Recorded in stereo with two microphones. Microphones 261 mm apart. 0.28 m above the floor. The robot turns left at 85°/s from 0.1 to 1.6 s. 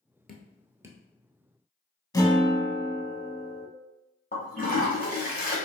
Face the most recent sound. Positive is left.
turn(degrees=35)  # may be behind; listen again after turning